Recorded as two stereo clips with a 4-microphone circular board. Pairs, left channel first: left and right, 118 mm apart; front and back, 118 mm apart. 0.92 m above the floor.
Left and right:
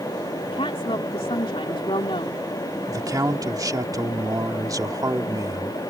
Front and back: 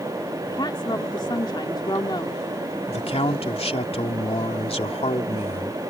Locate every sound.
0.5 s a woman speaking: 50° left
2.9 s a man speaking: 30° right